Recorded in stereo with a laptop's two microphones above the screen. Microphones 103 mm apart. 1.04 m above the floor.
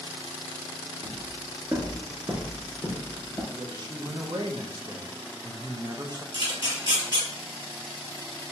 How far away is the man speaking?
About 0.5 m.